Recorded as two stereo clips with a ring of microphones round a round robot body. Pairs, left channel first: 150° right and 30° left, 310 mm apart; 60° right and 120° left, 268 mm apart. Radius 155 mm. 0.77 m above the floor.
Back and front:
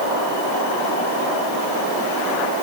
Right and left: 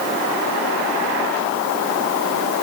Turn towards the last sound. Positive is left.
No sound to turn to.